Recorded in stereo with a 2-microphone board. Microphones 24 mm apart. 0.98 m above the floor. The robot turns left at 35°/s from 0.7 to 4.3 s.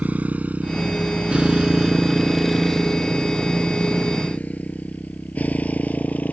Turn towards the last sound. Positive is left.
turn(degrees=75)  # may be behind; listen again after turning